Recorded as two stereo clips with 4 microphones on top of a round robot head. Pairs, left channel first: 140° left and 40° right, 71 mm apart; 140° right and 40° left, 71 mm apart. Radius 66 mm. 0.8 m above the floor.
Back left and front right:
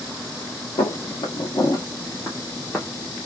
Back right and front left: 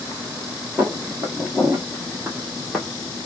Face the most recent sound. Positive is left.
turn(degrees=-135)